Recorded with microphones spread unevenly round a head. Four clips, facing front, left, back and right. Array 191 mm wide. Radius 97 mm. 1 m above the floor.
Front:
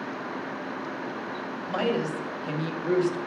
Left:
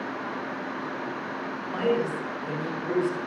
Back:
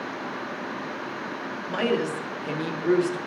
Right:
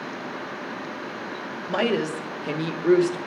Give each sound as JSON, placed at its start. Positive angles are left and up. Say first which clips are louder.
{"t": 1.7, "sound": "a woman speaking", "louder": "right 2 dB, back 2 dB", "azimuth_deg": -105, "distance_m": 1.5}